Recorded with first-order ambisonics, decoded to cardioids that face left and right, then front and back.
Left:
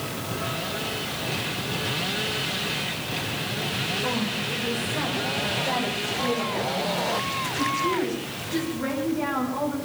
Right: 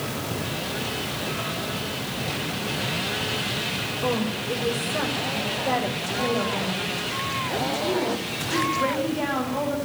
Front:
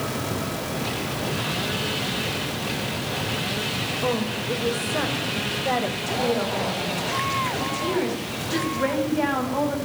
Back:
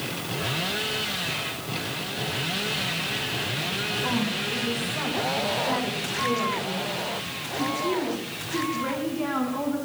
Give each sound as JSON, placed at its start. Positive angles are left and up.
{"t": 4.0, "sound": "a woman speaking", "azimuth_deg": -30, "distance_m": 6.5}